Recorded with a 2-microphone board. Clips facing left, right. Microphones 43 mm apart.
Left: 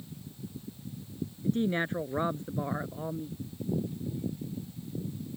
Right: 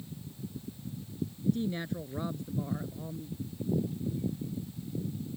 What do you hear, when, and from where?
1.4 s a woman speaking: 40° left (ahead or behind)